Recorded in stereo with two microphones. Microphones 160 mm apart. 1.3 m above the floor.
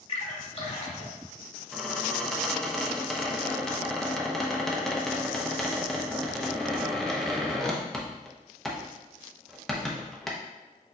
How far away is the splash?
About 1.2 m.